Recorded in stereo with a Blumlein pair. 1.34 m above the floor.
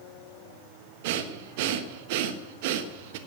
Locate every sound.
1.0 s breathing: 50° right, 1.2 m